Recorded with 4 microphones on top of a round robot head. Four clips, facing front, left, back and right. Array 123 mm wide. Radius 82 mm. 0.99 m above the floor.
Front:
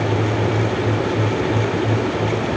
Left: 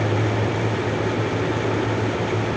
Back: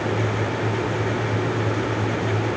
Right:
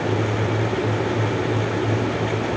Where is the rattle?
No rattle in this recording.